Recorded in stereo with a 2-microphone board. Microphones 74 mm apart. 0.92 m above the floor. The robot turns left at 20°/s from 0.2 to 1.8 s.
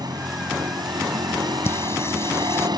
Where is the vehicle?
70° right; by 2.8 s 100° right.